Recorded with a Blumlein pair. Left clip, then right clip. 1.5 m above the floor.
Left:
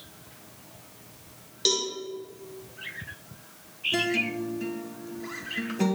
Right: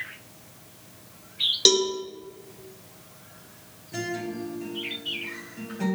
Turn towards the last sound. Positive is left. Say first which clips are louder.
# left 4 dB
turn(degrees=25)